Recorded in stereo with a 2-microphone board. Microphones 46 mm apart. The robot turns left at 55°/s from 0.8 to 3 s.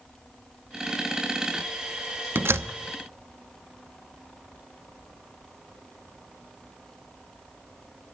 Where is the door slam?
50° right (ahead or behind), 0.8 m; by 2.7 s 70° right (ahead or behind), 0.8 m.